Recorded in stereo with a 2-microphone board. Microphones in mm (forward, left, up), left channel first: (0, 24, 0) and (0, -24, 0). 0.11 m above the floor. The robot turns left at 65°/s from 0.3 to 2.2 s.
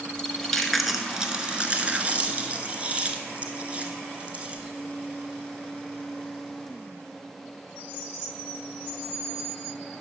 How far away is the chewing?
About 1.0 m.